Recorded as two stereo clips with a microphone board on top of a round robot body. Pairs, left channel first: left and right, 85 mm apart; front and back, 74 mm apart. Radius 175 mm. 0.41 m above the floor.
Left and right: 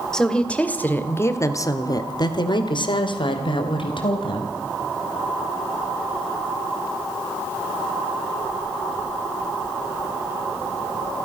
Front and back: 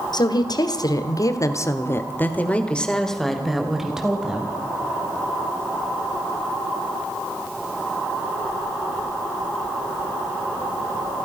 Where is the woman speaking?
10° left, 2.5 m; by 4.5 s 105° left, 3.5 m.